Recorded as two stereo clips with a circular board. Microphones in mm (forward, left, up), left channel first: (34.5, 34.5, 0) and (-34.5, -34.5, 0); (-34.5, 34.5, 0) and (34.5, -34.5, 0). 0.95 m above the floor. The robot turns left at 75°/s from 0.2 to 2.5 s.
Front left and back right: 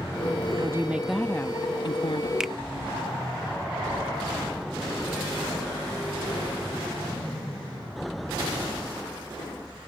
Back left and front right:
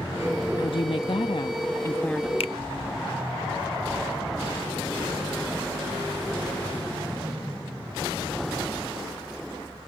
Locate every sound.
0.6 s a woman speaking: 175° left; by 2.3 s 45° left
2.4 s a finger snap: 140° left; by 2.5 s 135° left